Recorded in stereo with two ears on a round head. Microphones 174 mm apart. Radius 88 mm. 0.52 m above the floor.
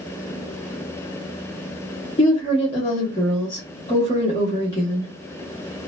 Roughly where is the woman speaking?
Left.